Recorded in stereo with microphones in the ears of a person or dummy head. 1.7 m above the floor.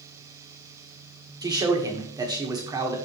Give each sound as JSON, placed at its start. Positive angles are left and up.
{"t": 1.4, "sound": "a man speaking", "side_deg": -20, "distance_m": 1.6}